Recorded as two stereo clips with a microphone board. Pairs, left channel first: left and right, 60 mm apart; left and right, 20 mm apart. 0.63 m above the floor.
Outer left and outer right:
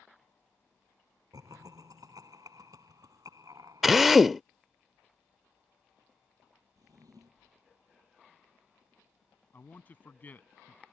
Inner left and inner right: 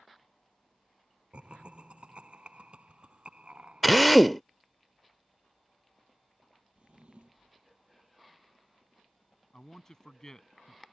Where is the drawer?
80° right.